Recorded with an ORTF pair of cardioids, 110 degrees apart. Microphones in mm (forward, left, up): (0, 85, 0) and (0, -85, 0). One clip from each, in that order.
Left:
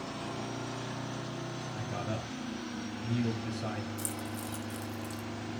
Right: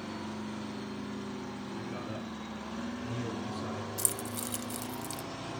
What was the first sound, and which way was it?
A man speaking, 45° left.